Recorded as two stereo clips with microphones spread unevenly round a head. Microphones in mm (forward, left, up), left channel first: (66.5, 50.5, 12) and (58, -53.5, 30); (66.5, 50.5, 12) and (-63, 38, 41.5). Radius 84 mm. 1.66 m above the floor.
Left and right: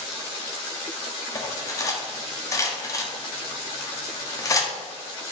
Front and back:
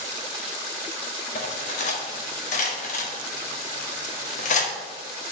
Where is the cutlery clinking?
25° left, 1.6 m.